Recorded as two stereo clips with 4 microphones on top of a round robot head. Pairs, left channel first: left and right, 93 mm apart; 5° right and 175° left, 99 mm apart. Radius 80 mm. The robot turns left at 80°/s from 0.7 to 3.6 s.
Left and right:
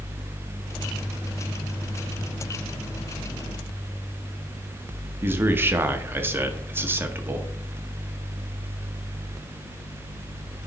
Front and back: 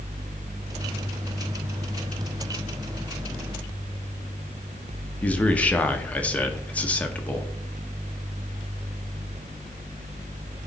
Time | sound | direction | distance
5.2 | a man speaking | 65° right | 0.9 m